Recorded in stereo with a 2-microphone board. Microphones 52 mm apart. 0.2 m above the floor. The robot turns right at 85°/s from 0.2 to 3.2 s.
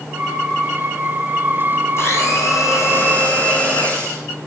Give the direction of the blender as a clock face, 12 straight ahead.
10 o'clock.